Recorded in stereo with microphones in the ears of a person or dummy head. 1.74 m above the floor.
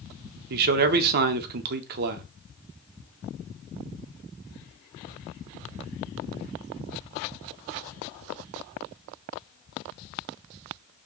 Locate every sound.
0.5 s a man speaking: 50° right (ahead or behind), 0.6 m